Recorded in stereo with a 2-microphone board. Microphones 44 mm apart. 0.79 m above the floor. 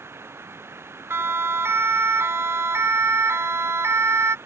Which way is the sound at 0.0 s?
65° right (ahead or behind).